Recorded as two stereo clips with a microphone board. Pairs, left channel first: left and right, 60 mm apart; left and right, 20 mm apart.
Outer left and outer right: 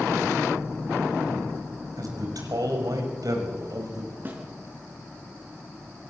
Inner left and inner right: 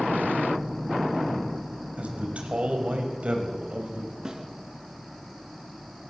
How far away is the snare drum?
About 5 m.